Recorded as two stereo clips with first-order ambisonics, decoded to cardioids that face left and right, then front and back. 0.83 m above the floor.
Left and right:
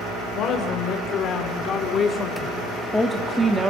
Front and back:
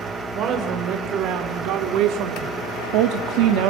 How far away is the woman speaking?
About 3 m.